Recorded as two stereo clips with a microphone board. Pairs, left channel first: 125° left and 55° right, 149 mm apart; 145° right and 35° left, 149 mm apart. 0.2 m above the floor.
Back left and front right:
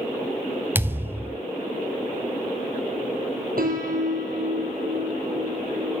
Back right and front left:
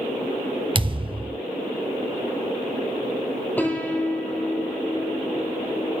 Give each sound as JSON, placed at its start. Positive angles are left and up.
{"t": 0.8, "sound": "a thud", "azimuth_deg": 10, "distance_m": 0.6}
{"t": 3.6, "sound": "a piano", "azimuth_deg": -65, "distance_m": 1.8}